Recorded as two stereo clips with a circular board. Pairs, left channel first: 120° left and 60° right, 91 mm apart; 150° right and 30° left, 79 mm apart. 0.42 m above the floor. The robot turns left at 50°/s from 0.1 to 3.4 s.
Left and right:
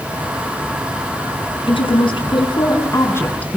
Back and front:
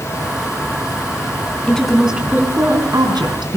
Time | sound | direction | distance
1.7 | a woman speaking | 135° left | 4.5 m